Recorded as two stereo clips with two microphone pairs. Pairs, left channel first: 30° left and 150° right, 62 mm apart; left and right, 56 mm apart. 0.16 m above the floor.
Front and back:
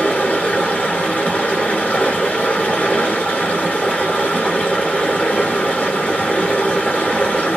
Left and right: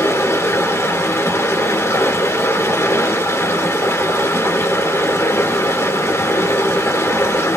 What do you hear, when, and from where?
0.0 s running water: 90° left, 1.1 m